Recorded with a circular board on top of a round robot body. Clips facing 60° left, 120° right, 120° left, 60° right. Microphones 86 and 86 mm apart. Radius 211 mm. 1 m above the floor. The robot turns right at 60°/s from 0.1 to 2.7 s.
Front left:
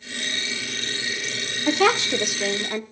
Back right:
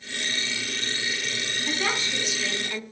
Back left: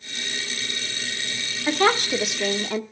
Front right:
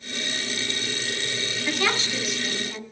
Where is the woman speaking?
60° left, 1.1 m; by 2.8 s 125° left, 1.1 m.